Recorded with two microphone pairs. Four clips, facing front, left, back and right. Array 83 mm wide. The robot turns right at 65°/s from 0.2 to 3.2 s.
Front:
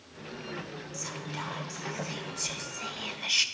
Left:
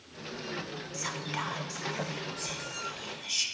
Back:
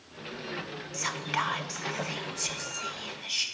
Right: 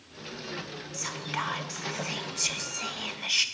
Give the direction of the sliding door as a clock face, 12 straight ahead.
No sliding door in this recording.